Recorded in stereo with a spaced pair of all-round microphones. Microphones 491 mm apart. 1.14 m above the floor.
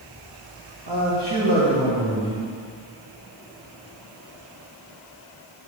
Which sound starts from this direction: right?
A man speaking, at 0.9 s.